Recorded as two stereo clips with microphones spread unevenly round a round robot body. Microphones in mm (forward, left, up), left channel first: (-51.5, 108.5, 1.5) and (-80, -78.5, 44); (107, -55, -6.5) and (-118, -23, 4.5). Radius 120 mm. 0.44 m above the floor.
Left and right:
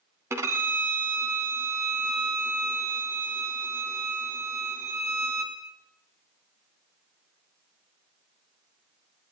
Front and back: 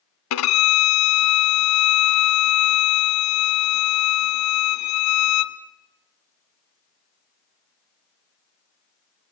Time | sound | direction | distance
0.3 | a violin | 20° right | 1.9 m